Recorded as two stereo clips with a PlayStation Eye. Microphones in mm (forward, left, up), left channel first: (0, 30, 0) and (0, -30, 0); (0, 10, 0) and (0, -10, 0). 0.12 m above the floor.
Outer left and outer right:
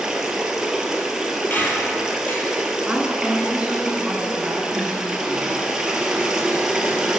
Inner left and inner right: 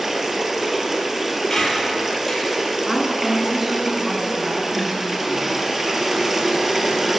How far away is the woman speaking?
About 1.1 m.